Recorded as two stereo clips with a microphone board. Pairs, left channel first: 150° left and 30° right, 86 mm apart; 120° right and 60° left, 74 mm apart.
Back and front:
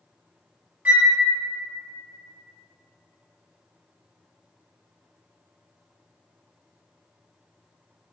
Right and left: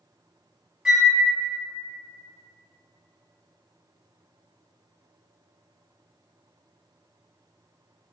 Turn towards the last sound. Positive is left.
turn(degrees=10)